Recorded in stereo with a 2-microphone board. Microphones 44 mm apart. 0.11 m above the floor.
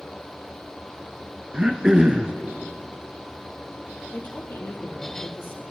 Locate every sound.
1.5 s throat clearing: 20° right (ahead or behind), 0.8 m
4.1 s a woman speaking: 55° left (ahead or behind), 2.5 m